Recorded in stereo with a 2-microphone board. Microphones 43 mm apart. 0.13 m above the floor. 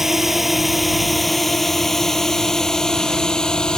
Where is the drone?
10° right (ahead or behind); by 3.8 s 20° left (ahead or behind).